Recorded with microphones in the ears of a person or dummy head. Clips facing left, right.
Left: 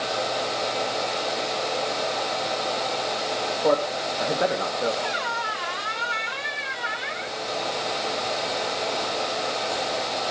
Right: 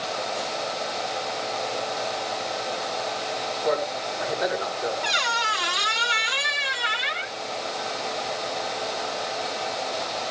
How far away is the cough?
I don't hear a cough.